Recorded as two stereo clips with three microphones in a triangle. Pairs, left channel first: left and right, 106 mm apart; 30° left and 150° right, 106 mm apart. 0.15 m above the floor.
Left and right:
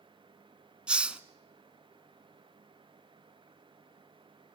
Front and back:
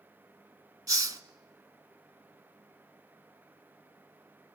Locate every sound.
0.9 s a hiss: 165° right, 0.8 m